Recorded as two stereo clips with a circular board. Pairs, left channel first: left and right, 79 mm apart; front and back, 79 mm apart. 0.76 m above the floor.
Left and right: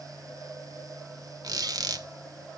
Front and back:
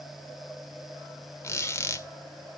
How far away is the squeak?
About 1.5 m.